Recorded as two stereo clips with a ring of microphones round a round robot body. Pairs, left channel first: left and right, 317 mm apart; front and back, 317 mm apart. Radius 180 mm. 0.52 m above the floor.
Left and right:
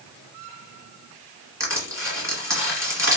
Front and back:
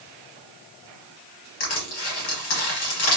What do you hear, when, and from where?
1.6 s crushing: 10° right, 1.7 m